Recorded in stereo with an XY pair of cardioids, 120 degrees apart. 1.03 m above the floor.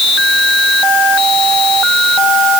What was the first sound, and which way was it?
Only background noise.